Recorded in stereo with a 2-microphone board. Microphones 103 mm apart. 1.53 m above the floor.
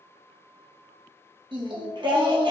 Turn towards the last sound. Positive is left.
turn(degrees=-50)  # may be behind; listen again after turning